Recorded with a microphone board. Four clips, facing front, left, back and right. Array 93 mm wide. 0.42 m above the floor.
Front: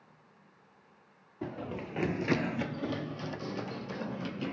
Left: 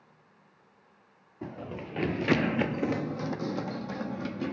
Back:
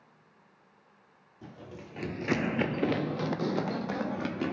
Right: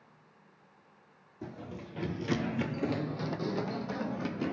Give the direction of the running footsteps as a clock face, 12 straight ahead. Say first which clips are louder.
Left 4 dB, front 8 dB; 11 o'clock.